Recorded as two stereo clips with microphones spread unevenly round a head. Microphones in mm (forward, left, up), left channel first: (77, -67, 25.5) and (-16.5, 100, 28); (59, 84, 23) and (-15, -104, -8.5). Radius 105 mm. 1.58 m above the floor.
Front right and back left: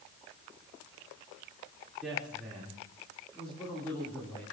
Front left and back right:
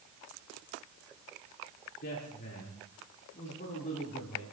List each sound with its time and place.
2.0 s a woman speaking: 35° left, 4.5 m; by 4.4 s 20° left, 4.5 m